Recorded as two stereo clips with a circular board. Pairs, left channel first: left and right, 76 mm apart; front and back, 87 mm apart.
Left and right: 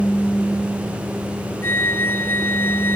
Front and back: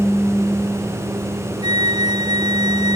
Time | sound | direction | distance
1.6 | a flute | 145° left | ?